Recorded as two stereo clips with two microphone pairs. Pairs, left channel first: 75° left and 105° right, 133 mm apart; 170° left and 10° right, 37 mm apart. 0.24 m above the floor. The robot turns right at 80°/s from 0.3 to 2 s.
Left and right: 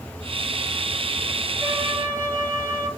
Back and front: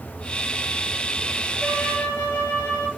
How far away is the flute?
About 3 m.